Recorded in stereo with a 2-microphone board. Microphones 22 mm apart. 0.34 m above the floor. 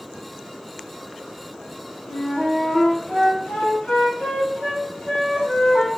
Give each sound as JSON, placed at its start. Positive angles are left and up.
{"t": 2.1, "sound": "a flute", "side_deg": 75, "distance_m": 2.0}